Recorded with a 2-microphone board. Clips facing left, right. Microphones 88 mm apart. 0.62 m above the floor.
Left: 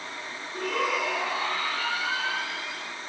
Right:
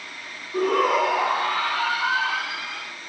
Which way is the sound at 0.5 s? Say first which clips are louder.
Right 8 dB; 45° right (ahead or behind).